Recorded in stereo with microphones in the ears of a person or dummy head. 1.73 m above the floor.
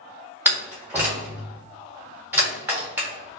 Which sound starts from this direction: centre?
A door slam, at 0.5 s.